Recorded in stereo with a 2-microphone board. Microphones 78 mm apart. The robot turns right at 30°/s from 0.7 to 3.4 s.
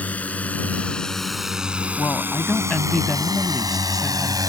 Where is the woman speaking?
140° left; by 4.4 s 175° right.